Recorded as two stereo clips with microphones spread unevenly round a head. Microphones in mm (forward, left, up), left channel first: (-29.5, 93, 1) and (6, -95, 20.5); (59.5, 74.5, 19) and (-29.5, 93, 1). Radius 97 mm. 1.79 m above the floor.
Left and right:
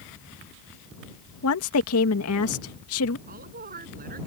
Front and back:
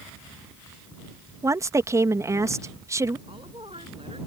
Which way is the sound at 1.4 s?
110° left.